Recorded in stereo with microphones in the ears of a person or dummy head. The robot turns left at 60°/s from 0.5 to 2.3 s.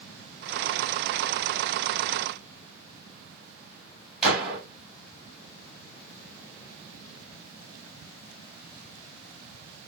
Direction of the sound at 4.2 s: 5° right (ahead or behind).